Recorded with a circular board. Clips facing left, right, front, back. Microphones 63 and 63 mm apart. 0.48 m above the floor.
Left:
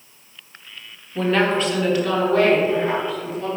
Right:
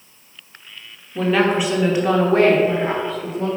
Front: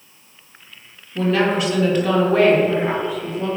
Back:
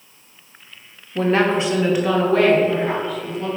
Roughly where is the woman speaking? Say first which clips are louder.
Right 1 dB, back 1 dB; behind.